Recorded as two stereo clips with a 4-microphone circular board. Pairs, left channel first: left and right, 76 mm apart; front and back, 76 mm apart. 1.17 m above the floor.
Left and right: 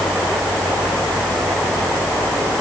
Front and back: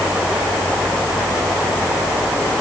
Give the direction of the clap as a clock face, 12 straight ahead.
No clap in this recording.